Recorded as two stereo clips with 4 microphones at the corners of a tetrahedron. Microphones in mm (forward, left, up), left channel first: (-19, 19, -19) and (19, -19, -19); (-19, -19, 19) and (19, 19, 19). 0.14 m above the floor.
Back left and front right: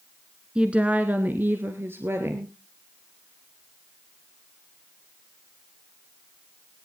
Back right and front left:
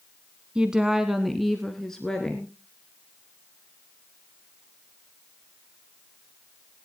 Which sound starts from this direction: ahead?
A woman speaking, at 0.6 s.